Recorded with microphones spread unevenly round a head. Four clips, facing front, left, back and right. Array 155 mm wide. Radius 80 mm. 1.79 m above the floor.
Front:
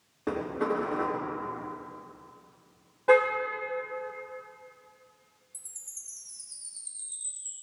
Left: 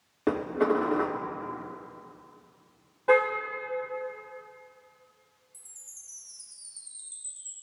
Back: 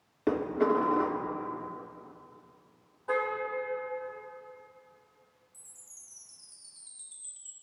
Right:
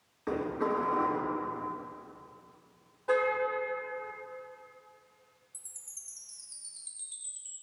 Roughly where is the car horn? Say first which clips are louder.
Left 6 dB, front 9 dB; ahead left.